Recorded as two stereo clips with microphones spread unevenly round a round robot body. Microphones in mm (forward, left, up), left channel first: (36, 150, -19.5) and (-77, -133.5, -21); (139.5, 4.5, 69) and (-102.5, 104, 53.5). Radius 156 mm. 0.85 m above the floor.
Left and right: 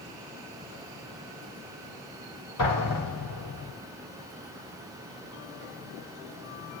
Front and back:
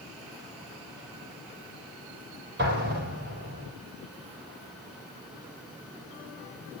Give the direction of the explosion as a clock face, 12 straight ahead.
8 o'clock.